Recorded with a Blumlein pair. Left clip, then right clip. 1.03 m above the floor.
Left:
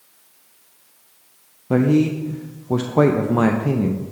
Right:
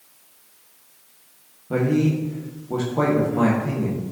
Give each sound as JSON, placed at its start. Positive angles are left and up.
{"t": 1.7, "sound": "a man speaking", "azimuth_deg": 60, "distance_m": 0.6}